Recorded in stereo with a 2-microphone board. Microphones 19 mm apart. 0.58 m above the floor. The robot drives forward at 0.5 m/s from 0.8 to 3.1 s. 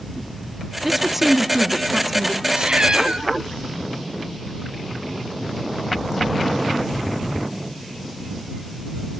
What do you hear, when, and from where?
0.8 s a woman speaking: 5° right (ahead or behind), 1.1 m
2.5 s a cat meowing: 70° right (ahead or behind), 2.5 m; by 3.3 s 65° right (ahead or behind), 2.5 m